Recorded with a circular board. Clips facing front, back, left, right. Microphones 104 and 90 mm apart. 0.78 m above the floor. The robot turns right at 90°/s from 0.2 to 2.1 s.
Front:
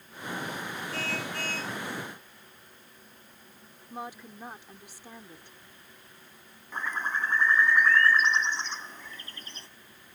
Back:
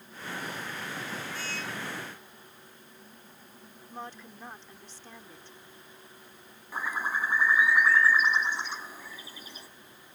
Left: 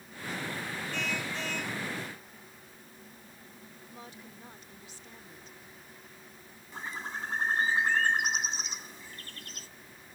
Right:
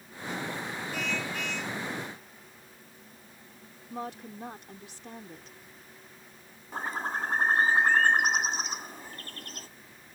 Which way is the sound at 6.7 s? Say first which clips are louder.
Even, right 6 dB; 100° right.